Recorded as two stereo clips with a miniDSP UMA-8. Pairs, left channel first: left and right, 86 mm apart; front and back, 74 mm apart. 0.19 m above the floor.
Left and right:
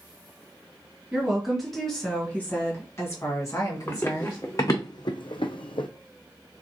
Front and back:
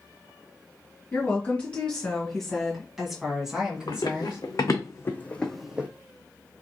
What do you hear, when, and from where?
1.1 s a woman speaking: 25° right, 1.5 m; by 4.4 s 110° left, 2 m
3.9 s running footsteps: 30° left, 1.4 m; by 5.9 s 110° left, 0.6 m